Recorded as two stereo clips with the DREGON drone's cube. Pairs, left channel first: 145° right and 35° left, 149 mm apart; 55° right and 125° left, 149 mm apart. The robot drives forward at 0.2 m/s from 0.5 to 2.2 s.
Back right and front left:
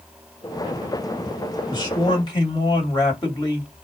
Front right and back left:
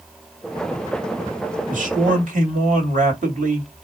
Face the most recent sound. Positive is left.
turn(degrees=155)